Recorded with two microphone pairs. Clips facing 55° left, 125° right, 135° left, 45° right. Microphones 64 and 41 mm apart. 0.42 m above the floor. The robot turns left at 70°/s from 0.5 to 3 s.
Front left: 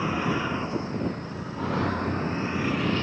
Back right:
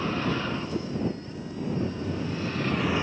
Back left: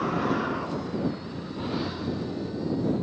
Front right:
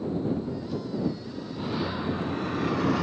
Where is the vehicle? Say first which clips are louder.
Front left 2 dB, back left 3 dB; 130° left; by 3.0 s 50° right.